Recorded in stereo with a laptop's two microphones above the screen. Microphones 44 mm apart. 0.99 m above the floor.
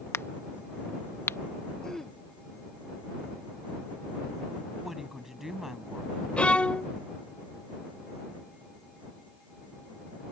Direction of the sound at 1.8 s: 10° left (ahead or behind).